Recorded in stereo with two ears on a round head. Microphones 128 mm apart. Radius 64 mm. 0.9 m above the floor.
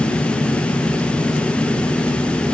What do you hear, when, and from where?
Only background noise.